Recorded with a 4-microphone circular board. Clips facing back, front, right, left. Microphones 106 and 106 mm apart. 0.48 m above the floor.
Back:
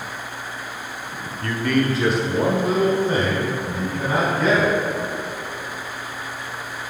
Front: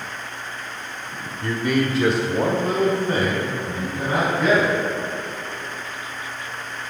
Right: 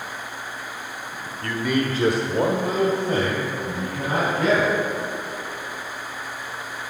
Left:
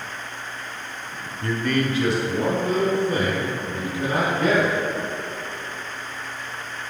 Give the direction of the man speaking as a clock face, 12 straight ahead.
10 o'clock.